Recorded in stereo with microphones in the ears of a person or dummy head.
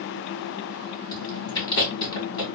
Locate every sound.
1.1 s chewing: 30° left (ahead or behind), 2.5 m